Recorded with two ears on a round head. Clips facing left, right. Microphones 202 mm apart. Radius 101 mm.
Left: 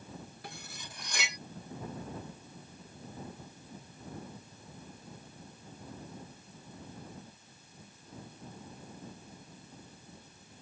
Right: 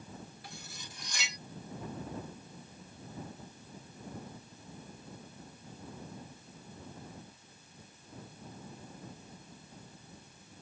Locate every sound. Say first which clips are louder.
0.4 s cutlery clinking: left 2 dB; 45° left (ahead or behind)